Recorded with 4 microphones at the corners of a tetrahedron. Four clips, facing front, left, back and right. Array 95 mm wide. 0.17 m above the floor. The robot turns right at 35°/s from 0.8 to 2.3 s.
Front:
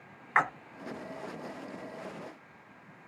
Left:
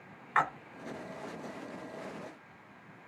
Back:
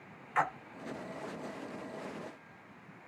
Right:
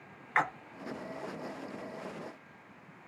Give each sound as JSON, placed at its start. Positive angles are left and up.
{"t": 0.3, "sound": "a splash", "azimuth_deg": 0, "distance_m": 0.7}